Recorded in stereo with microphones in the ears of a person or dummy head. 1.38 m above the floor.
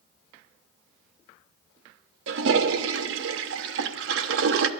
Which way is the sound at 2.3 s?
75° right (ahead or behind).